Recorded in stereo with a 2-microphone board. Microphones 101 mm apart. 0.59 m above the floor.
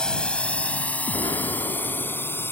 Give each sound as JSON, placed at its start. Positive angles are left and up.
{"t": 0.0, "sound": "a drone", "side_deg": 10}
{"t": 1.1, "sound": "an explosion", "side_deg": 45}